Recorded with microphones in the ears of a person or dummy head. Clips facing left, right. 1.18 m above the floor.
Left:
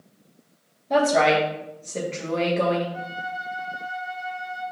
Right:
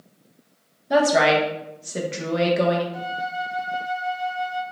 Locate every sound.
0.9 s a woman speaking: 10° right (ahead or behind), 0.9 m
2.9 s a flute: 45° right (ahead or behind), 0.9 m